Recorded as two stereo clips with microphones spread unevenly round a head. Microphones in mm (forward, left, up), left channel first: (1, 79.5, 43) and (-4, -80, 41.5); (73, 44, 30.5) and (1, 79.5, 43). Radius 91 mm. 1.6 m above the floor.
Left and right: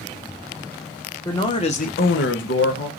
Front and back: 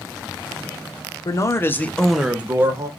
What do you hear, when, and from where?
1.2 s a man speaking: 20° left, 1.0 m; by 2.9 s 105° left, 1.0 m